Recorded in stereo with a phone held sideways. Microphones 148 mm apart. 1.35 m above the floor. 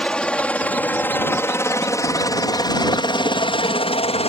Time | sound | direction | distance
0.0 | a helicopter | 5° left (ahead or behind) | ?